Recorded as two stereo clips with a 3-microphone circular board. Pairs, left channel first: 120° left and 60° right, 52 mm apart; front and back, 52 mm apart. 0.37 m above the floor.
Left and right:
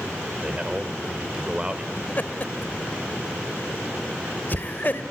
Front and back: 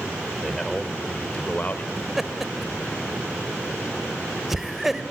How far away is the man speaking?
About 1.3 m.